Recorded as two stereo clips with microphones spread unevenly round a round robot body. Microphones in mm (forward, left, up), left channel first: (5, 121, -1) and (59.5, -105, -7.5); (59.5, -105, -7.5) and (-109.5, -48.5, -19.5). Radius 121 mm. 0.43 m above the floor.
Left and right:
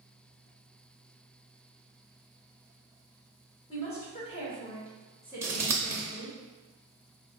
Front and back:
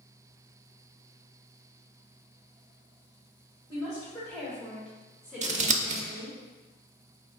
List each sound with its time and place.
3.7 s a woman speaking: 50° left, 1.7 m; by 6.4 s 165° right, 1.4 m
5.4 s scissors: 155° right, 0.5 m